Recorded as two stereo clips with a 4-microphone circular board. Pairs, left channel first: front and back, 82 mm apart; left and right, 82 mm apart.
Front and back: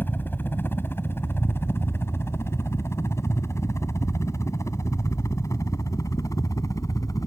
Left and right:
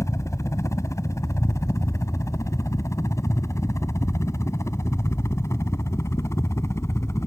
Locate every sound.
0.0 s a helicopter: 55° left; by 7.3 s 40° left